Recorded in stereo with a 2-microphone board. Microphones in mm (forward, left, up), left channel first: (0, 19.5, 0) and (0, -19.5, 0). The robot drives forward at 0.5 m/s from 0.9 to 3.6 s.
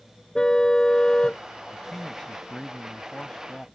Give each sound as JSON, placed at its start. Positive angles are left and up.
{"t": 0.3, "sound": "a car horn", "side_deg": 20}
{"t": 1.7, "sound": "a man speaking", "side_deg": 15}